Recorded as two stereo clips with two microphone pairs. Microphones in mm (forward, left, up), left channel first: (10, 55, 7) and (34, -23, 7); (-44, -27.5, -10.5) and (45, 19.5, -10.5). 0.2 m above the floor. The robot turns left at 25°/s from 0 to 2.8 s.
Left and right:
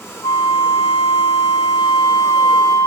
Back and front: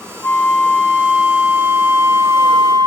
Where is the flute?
140° left, 4.5 m; by 2.9 s 75° left, 4.5 m.